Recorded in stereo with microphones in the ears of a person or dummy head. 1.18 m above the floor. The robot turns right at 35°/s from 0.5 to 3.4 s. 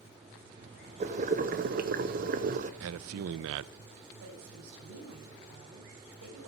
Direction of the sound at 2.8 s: 80° right.